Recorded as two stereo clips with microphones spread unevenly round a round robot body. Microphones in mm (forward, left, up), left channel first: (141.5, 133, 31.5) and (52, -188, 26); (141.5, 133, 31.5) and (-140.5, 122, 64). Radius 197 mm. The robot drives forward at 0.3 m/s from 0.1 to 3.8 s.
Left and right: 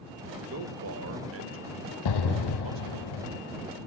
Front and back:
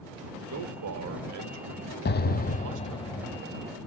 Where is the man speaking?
150° right, 1.3 m; by 3.0 s 160° right, 1.9 m.